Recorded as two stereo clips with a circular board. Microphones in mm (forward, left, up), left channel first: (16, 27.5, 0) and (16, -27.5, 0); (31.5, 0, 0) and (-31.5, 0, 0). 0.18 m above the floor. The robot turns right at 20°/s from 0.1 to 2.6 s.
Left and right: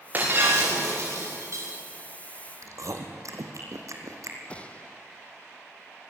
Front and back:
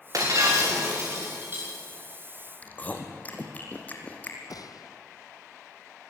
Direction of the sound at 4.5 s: 20° left.